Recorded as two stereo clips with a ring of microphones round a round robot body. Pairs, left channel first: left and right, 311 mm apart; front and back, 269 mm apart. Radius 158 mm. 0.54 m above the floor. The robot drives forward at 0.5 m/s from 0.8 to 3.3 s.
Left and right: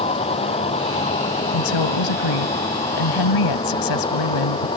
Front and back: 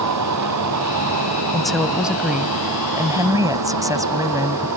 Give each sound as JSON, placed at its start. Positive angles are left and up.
{"t": 0.0, "sound": "a vehicle", "azimuth_deg": 165}
{"t": 1.5, "sound": "a woman speaking", "azimuth_deg": 90}